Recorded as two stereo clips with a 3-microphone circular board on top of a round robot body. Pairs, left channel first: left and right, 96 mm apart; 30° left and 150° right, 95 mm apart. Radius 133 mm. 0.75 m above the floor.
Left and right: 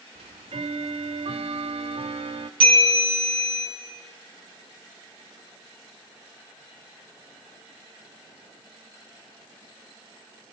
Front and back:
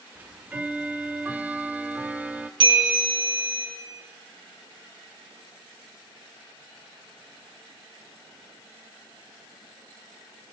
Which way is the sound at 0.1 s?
75° right.